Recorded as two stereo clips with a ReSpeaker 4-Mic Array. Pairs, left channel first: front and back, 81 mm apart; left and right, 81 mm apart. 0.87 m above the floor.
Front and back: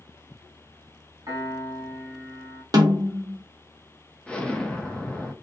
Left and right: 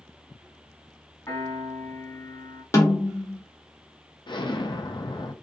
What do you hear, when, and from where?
1.3 s a piano: 140° left, 1.6 m
2.7 s a snare drum: 140° left, 0.8 m
4.3 s an explosion: 75° left, 0.5 m